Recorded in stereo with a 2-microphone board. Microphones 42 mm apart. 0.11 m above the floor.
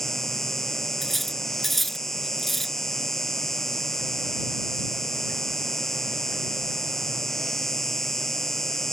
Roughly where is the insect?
Centre.